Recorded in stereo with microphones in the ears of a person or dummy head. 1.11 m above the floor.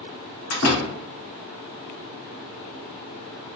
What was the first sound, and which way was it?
A door slam, 65° left (ahead or behind).